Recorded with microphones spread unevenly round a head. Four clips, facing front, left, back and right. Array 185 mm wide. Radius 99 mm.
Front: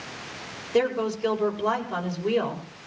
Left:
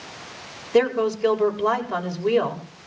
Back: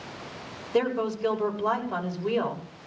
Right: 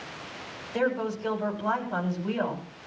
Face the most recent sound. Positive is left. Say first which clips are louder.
# left 8 dB, front 2 dB
turn(degrees=90)